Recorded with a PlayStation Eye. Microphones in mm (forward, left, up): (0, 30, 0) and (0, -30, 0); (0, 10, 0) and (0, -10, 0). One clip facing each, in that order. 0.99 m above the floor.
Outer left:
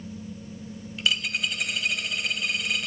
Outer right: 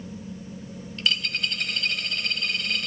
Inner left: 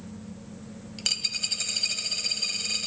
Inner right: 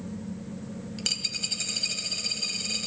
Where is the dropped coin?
5° left (ahead or behind), 0.8 m.